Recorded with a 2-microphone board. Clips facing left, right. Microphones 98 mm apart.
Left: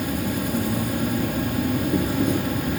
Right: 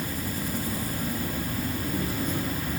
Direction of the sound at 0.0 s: 60° left (ahead or behind).